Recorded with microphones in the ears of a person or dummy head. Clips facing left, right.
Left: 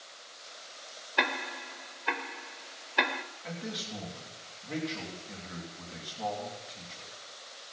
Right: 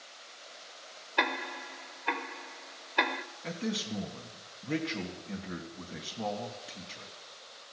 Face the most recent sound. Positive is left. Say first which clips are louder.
# right 6 dB
turn(degrees=-45)  # may be behind; listen again after turning